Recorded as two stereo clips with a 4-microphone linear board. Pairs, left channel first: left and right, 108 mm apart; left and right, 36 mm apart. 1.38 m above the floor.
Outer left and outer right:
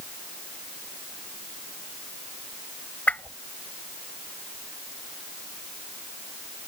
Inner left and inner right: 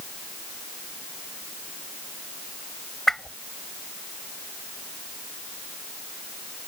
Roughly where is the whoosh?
Centre.